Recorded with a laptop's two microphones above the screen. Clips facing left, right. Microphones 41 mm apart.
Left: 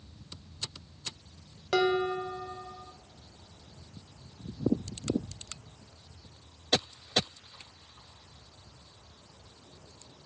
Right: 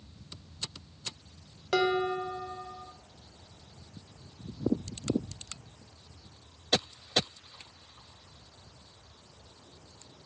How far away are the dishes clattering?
About 1.1 m.